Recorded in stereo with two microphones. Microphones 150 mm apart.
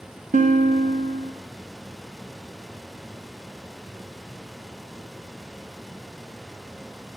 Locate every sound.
0.3 s a guitar: 55° right (ahead or behind), 0.9 m